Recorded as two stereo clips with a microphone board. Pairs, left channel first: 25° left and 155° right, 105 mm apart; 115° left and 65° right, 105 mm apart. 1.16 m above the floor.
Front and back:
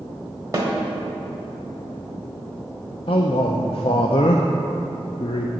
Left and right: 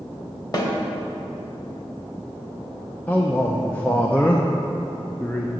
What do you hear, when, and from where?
0.5 s a snare drum: 155° left, 1.4 m
3.1 s a man speaking: 40° left, 0.5 m